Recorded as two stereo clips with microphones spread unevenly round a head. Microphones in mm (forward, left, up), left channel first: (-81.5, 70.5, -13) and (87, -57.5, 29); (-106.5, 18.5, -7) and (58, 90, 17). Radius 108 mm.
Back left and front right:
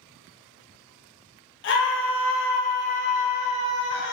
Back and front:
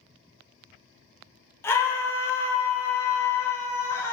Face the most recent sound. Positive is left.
turn(degrees=130)